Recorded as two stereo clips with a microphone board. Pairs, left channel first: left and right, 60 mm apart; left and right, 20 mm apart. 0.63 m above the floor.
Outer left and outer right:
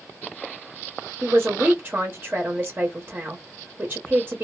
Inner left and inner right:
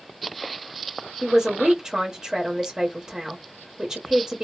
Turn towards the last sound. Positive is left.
turn(degrees=-30)  # may be behind; listen again after turning